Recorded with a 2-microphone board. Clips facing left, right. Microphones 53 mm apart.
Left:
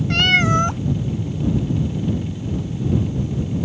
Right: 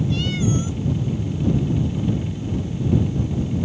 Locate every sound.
0.1 s a cat meowing: 65° left (ahead or behind)